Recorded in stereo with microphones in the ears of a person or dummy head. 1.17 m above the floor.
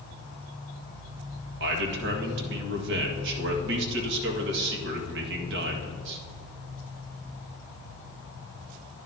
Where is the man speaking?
65° right (ahead or behind), 1.7 m.